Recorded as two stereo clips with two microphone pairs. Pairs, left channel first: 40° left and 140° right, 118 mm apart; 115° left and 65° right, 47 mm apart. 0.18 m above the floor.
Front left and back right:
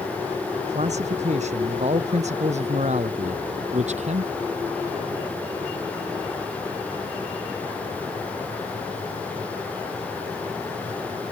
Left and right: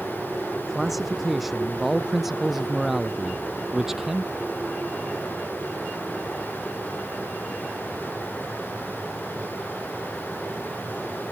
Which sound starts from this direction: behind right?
A man speaking, at 0.7 s.